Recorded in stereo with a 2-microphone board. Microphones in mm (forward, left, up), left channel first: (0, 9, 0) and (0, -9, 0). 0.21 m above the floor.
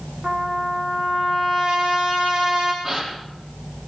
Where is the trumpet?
60° right (ahead or behind), 6.5 m.